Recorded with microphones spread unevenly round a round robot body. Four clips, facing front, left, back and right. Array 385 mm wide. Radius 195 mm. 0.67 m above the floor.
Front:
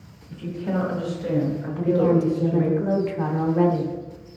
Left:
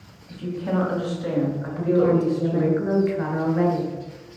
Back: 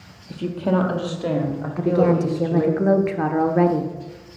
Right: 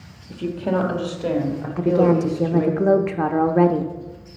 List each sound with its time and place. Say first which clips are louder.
0.3 s a woman speaking: right 3 dB, back 5 dB; 145° right, 1.4 m; by 2.8 s 155° right, 2.5 m
1.8 s a woman speaking: right 2 dB, back 1 dB; 120° right, 0.9 m